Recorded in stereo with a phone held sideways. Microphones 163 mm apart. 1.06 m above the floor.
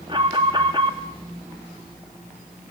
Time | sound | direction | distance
0.1 | an alarm | 30° right (ahead or behind) | 2.5 m